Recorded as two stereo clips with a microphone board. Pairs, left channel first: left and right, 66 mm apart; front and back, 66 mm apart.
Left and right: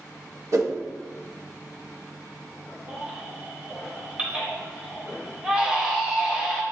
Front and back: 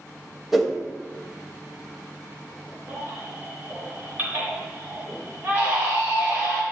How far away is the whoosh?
About 0.7 m.